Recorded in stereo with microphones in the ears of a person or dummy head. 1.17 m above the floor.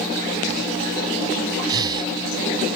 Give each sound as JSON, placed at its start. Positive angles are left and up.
{"t": 1.7, "sound": "breathing", "side_deg": -25}